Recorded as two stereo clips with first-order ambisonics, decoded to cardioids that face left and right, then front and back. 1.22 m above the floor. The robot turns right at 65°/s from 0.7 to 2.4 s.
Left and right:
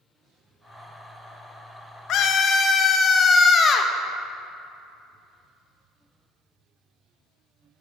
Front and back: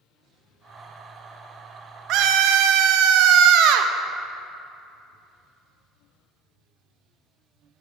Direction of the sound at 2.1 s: 135° left.